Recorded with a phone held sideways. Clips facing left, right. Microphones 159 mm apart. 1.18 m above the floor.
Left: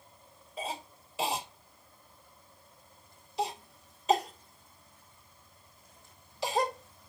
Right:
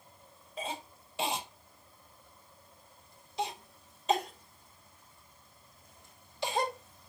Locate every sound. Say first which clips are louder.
0.6 s a cough: left 1 dB; centre (ahead or behind), 1.7 m